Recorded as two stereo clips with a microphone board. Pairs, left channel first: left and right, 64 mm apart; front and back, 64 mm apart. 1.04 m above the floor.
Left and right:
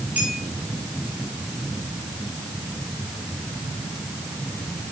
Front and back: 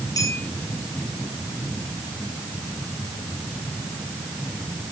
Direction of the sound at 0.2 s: 25° right.